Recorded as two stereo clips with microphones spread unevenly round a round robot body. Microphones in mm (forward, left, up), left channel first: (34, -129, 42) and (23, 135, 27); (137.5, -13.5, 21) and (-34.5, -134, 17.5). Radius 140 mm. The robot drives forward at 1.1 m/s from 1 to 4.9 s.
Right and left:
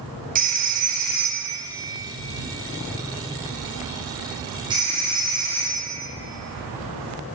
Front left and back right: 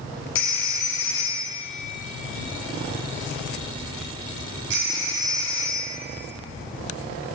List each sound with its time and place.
0.3 s a phone ringing: 35° left, 1.4 m; by 5.9 s 165° left, 3.5 m